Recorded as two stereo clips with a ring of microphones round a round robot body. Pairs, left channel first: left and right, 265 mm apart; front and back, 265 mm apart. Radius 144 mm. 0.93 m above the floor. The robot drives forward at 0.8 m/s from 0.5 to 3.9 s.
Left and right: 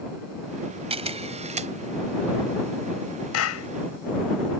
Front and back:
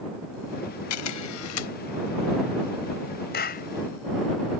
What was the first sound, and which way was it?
A camera shutter, 20° right.